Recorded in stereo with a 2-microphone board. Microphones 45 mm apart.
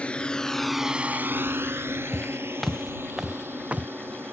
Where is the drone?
30° left (ahead or behind); by 4.3 s 60° right (ahead or behind).